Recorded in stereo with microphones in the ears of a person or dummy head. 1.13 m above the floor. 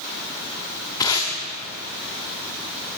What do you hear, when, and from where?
1.0 s tape being pulled: 15° left (ahead or behind), 0.8 m